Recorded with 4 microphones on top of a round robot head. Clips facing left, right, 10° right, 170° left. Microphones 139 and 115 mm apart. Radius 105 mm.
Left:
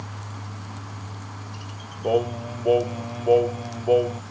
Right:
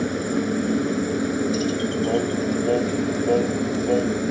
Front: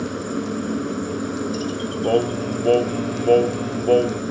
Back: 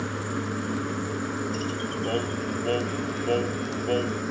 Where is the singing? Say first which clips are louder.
Left 2 dB, front 10 dB; 20° left.